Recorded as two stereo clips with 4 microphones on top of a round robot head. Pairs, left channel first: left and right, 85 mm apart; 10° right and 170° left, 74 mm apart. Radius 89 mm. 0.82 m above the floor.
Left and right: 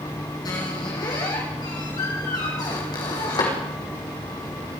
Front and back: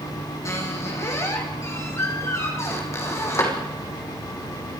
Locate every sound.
0.5 s a squeak: 40° left, 6.5 m